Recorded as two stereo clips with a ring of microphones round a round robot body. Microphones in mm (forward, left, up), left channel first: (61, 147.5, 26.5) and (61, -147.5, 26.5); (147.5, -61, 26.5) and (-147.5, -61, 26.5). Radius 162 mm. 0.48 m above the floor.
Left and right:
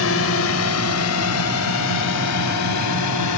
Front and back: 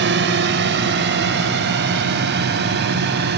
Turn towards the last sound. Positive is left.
turn(degrees=120)